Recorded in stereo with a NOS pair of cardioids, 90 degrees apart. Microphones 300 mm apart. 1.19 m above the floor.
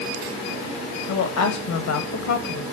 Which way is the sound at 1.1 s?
65° left.